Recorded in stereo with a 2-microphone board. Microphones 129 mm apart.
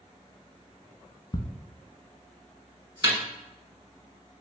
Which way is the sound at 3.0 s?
25° right (ahead or behind).